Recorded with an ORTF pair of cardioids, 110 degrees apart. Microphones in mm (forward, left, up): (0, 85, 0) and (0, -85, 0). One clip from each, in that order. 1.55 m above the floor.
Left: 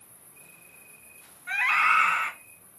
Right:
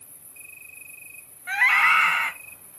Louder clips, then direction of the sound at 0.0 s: Right 7 dB; 50° right.